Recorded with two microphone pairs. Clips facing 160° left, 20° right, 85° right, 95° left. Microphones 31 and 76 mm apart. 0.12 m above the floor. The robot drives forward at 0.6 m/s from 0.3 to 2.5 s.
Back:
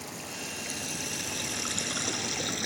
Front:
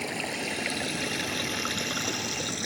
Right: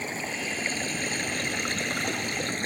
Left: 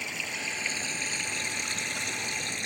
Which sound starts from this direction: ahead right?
Running water, at 0.0 s.